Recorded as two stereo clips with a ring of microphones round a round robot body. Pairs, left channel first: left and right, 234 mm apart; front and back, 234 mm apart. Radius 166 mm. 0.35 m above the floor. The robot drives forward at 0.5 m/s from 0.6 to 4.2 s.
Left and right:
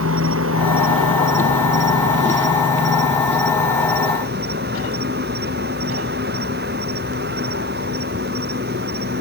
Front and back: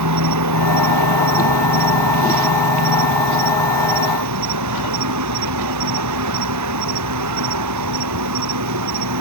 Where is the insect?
145° right; by 9.2 s 155° right.